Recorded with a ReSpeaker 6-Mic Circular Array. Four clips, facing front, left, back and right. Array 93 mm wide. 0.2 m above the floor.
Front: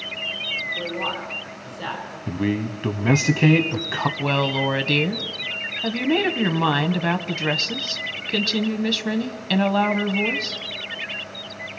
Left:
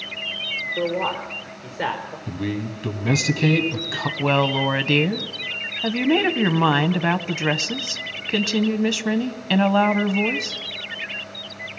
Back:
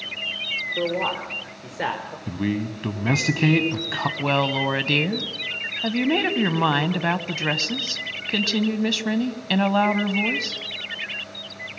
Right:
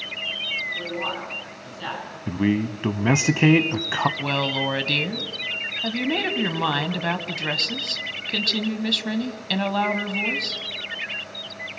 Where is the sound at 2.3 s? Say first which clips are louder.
Right 6 dB, front 2 dB; 80° right, 1.1 m.